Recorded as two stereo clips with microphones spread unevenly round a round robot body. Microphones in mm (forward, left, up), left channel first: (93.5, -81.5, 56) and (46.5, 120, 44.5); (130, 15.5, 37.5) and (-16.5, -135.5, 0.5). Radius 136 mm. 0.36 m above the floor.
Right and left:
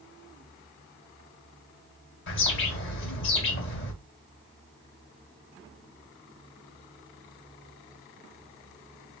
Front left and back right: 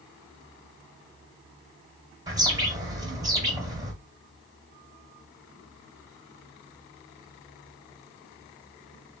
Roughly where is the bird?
Right.